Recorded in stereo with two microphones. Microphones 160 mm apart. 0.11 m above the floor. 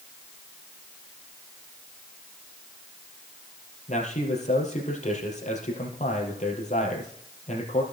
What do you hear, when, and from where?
3.9 s a man speaking: 50° left (ahead or behind), 3.5 m